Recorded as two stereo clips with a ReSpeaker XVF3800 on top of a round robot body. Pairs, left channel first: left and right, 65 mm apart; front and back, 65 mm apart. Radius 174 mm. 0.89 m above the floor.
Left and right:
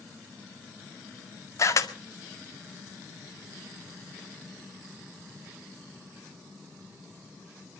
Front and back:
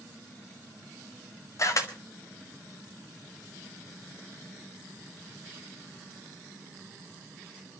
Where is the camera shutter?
45° left, 2.0 m.